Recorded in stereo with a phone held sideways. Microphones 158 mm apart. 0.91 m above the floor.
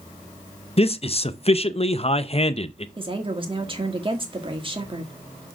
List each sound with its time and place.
0.8 s a man speaking: 40° left (ahead or behind), 0.6 m
3.0 s a woman speaking: 35° right (ahead or behind), 1.7 m